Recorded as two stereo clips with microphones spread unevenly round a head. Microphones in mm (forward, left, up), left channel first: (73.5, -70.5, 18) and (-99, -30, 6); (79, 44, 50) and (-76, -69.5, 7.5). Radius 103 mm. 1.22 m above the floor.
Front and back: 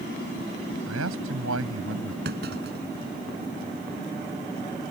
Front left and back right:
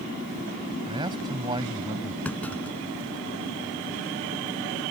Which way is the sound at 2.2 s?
120° left.